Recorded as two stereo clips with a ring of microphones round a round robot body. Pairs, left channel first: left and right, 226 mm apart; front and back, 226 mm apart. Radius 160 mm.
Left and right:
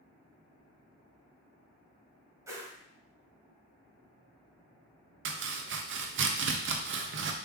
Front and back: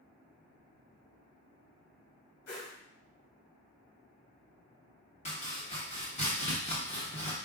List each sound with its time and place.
2.5 s a whoosh: 15° right, 1.4 m
5.2 s chopping: 65° right, 0.6 m